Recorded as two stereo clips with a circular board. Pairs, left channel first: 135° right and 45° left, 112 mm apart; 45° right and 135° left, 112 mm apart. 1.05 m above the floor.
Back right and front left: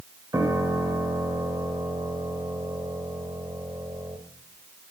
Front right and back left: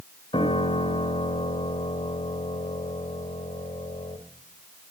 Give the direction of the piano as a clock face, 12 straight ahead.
12 o'clock.